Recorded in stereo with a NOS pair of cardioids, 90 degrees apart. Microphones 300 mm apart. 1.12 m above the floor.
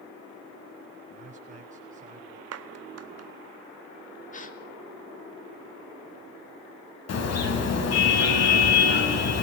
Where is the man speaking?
30° right, 6.5 m.